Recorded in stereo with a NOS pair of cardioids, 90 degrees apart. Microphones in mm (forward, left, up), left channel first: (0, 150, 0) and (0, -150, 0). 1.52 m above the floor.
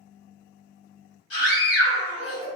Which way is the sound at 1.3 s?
50° left.